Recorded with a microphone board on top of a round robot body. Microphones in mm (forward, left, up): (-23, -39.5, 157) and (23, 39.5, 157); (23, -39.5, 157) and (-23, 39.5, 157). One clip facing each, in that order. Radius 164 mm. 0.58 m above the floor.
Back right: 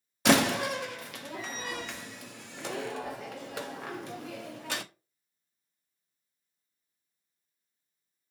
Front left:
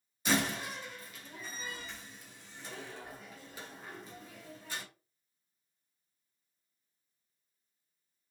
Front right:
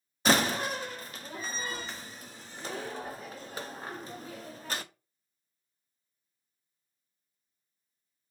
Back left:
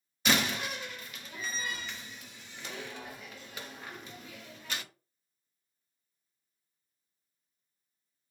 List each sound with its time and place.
0.2 s a door slam: 110° right, 0.6 m